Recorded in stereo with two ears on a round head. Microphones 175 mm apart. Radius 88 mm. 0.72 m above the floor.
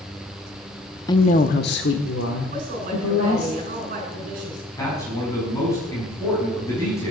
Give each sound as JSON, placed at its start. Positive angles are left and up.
{"t": 1.1, "sound": "a woman speaking", "side_deg": 20, "distance_m": 0.7}
{"t": 2.5, "sound": "a woman speaking", "side_deg": -45, "distance_m": 8.0}
{"t": 4.8, "sound": "a man speaking", "side_deg": 15, "distance_m": 5.5}